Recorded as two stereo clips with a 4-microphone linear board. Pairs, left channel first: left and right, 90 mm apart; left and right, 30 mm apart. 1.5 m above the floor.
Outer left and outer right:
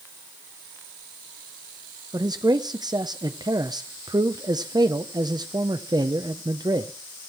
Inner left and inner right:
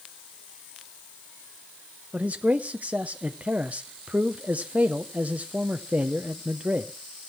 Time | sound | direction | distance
2.1 | a man speaking | 50° right (ahead or behind) | 0.6 m